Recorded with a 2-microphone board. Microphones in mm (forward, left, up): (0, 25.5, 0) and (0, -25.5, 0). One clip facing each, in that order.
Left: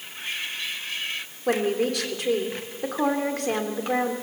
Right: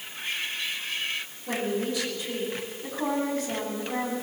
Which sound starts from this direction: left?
A woman speaking, at 1.5 s.